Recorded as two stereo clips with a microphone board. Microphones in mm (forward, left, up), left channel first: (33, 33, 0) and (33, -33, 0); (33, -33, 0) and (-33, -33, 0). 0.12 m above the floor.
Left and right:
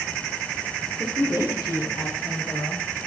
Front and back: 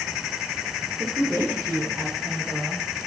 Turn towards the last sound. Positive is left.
turn(degrees=75)